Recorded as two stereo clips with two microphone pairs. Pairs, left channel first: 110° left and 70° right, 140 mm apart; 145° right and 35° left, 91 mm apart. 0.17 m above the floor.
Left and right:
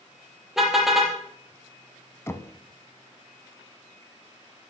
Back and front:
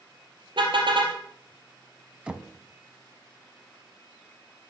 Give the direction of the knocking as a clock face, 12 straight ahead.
9 o'clock.